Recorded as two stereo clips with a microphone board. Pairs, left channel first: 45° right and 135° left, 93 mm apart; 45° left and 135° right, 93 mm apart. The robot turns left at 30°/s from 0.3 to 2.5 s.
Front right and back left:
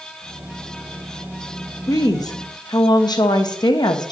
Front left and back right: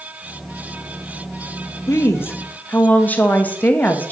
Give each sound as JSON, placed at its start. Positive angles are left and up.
{"t": 1.9, "sound": "a woman speaking", "azimuth_deg": -5, "distance_m": 0.7}